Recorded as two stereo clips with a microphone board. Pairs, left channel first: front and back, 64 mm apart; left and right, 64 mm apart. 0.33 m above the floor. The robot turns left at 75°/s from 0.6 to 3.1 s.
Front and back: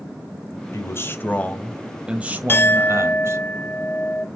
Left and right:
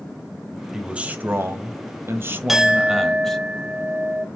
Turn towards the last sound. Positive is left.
turn(degrees=-55)